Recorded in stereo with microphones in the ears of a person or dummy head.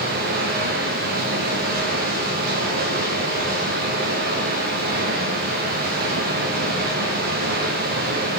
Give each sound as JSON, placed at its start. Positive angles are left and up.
{"t": 0.0, "sound": "running water", "side_deg": -45, "distance_m": 0.7}